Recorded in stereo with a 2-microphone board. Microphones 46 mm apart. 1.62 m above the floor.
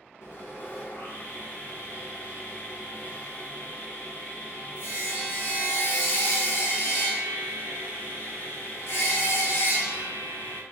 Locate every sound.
0.2 s sawing: 55° left (ahead or behind), 0.9 m